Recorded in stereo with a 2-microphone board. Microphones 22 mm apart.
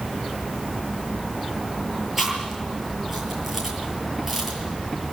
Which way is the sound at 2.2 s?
10° right (ahead or behind).